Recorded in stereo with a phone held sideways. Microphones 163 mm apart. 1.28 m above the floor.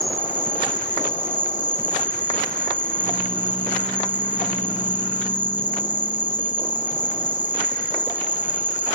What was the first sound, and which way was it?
An insect, 50° left (ahead or behind).